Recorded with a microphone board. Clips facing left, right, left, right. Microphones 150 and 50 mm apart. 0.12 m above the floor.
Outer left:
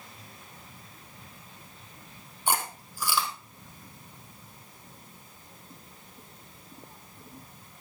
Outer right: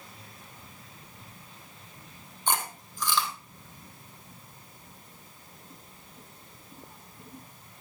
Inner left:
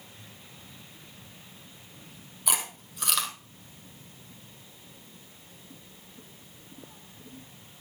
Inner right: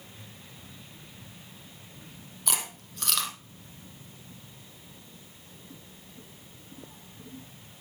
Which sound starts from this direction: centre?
Chewing, at 2.5 s.